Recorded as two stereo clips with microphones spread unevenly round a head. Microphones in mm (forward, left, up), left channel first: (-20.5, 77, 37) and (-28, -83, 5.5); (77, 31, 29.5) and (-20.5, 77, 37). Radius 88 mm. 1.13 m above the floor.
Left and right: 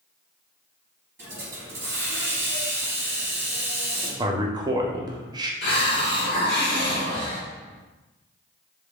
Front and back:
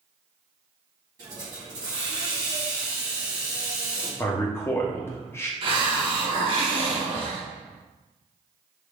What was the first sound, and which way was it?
A hiss, 175° right.